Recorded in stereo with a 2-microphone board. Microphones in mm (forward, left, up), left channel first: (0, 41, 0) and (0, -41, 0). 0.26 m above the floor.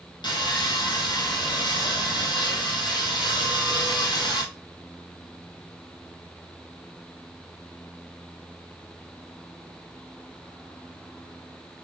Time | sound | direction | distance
0.2 | sawing | 65° left (ahead or behind) | 1.3 m